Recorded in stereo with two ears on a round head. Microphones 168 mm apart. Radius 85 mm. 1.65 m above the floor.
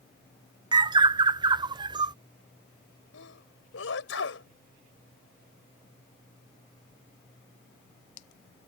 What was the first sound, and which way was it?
A bird, 25° right (ahead or behind).